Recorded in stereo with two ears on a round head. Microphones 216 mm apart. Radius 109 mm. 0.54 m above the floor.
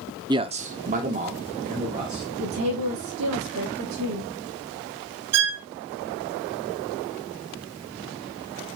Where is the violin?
65° right (ahead or behind), 1.4 m.